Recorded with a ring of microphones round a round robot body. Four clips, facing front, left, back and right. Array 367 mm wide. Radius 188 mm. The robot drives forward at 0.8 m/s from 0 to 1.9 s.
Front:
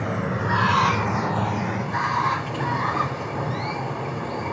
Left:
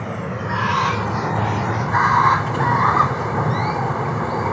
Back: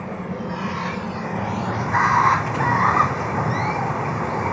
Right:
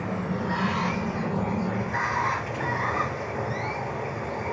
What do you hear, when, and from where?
0.0 s running water: 25° left, 1.3 m; by 4.5 s 120° left, 0.6 m